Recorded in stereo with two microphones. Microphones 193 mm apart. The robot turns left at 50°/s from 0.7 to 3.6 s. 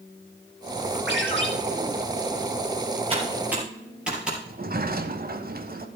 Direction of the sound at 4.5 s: 50° right (ahead or behind).